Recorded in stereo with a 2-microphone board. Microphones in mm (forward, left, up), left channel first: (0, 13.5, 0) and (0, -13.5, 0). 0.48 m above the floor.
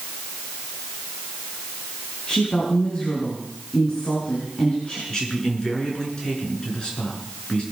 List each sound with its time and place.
2.3 s a woman speaking: 40° left (ahead or behind), 6 m
5.1 s a man speaking: 30° left (ahead or behind), 6.5 m